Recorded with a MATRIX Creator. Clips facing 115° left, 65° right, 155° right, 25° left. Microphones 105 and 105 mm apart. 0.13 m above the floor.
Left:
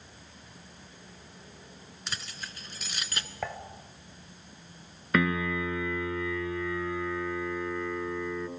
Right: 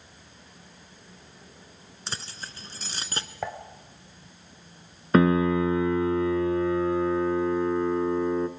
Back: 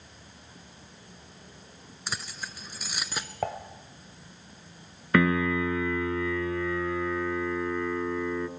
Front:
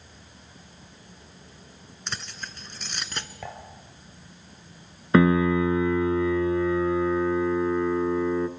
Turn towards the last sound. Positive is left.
turn(degrees=-30)